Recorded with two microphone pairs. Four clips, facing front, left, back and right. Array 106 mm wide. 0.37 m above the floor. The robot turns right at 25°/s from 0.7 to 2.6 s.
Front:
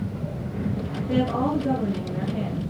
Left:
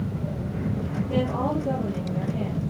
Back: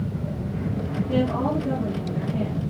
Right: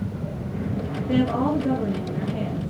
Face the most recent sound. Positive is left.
turn(degrees=-25)